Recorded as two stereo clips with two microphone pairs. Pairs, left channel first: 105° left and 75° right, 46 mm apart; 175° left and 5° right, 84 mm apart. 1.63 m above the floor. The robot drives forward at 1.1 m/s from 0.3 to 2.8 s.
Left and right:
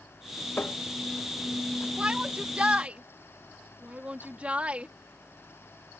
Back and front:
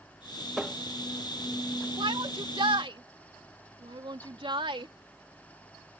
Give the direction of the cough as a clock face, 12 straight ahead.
No cough in this recording.